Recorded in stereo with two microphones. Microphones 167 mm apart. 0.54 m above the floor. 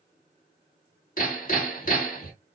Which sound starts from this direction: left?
Hammering, at 1.2 s.